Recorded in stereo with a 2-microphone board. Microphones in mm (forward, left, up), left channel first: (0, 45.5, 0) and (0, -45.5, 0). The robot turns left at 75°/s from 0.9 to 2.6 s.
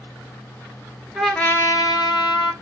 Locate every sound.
1.1 s a trumpet: straight behind, 0.6 m; by 2.5 s 80° left, 0.6 m